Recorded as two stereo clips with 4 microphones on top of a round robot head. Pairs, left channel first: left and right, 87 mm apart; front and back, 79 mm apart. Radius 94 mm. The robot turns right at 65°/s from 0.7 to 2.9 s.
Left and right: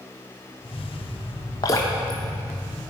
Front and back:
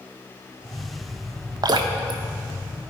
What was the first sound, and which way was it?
Dripping, 145° left.